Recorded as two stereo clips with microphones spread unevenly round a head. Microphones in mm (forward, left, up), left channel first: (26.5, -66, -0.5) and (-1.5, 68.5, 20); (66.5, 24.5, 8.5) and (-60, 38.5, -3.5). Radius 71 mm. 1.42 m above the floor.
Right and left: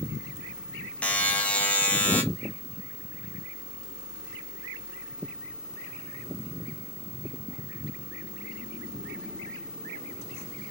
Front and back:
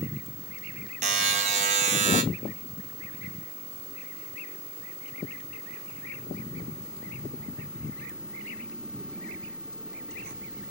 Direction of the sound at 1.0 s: 155° right.